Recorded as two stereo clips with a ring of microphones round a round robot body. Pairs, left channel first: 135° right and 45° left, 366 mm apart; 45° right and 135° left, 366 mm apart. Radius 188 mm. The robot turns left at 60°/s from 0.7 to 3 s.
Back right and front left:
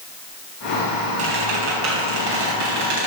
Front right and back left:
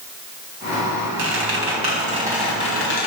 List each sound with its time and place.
1.2 s a squeak: 115° left, 4 m; by 3.1 s 10° left, 4 m